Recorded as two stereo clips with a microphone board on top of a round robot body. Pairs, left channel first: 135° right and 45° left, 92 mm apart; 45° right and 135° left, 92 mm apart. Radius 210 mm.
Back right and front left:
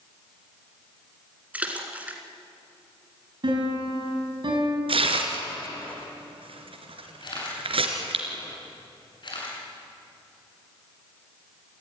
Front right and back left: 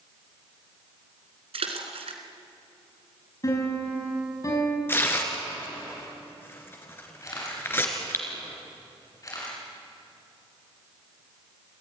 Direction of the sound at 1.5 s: 120° left.